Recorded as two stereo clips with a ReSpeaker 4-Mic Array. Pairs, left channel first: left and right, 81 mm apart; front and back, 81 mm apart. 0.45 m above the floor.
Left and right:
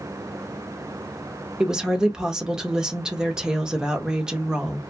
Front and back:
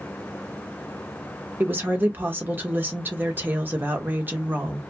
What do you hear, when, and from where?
1.6 s a woman speaking: 160° right, 0.8 m